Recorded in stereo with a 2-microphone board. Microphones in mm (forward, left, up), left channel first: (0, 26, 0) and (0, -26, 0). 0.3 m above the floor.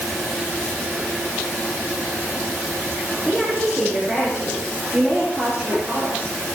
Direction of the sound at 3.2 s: 15° right (ahead or behind).